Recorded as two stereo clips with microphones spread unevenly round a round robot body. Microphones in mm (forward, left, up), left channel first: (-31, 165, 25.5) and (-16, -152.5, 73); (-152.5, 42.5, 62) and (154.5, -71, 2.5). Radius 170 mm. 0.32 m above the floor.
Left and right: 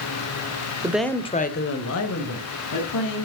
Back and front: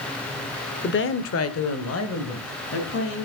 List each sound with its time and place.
0.8 s a woman speaking: 175° right, 1.1 m; by 3.2 s 105° left, 3 m